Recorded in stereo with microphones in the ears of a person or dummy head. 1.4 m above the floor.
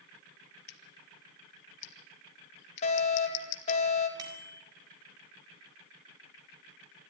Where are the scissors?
65° left (ahead or behind), 1.1 m.